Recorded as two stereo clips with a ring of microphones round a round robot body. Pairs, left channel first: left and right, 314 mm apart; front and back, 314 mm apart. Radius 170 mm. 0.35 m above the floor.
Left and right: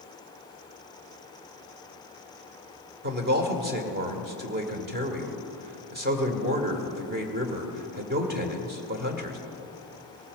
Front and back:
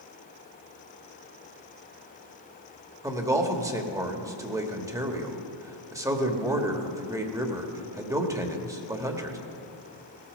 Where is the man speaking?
110° right, 1.5 m.